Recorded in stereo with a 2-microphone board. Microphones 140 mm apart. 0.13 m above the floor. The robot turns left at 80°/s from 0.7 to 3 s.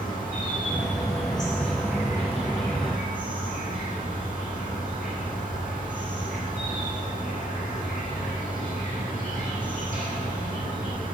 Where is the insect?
85° left, 9 m; by 11.2 s 100° right, 9 m.